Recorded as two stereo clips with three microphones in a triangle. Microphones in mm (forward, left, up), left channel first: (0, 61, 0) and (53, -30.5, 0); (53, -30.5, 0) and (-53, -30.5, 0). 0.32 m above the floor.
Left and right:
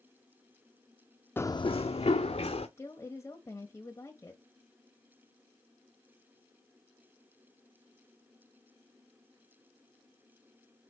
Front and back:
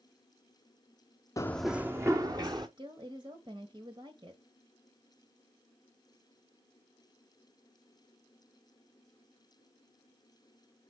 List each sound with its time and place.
1.4 s running footsteps: 50° left, 0.6 m; by 2.7 s 130° left, 1.7 m
2.8 s a woman speaking: 170° left, 1.4 m